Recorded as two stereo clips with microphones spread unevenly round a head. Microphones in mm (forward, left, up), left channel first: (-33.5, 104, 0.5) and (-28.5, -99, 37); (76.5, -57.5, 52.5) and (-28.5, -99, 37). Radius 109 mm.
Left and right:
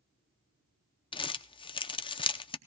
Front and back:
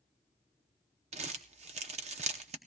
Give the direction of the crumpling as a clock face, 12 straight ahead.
7 o'clock.